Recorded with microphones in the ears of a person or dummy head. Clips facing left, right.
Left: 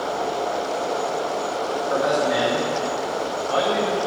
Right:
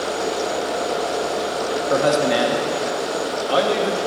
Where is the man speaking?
45° right (ahead or behind), 0.8 m.